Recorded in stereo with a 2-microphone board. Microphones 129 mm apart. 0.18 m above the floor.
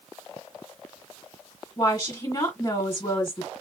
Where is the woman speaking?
30° left (ahead or behind), 2.0 m.